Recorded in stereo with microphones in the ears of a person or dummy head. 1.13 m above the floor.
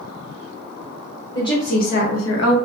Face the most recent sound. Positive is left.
turn(degrees=80)